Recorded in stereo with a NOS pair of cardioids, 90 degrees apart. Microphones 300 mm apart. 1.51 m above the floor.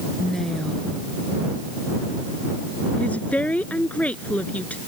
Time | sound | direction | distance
0.2 | a woman speaking | straight ahead | ?
3.0 | a woman speaking | 5° left | ?